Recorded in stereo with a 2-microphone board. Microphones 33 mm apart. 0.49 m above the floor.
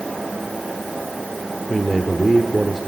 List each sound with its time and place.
1.7 s a man speaking: 5° right (ahead or behind), 1.5 m